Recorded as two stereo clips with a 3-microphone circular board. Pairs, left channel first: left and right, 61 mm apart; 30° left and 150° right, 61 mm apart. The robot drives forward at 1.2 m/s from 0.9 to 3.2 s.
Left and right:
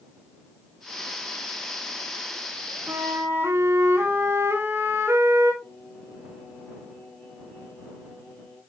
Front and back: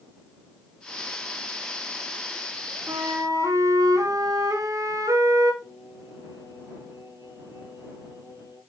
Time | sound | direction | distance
2.9 | a flute | 125° right | 1.7 m
5.6 | singing | 170° left | 5 m